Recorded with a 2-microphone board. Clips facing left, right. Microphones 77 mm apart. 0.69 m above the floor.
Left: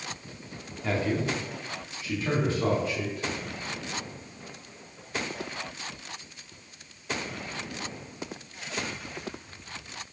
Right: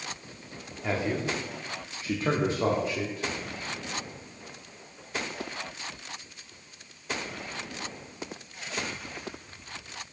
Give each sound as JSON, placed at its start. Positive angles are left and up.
{"t": 0.8, "sound": "a man speaking", "side_deg": -10, "distance_m": 1.1}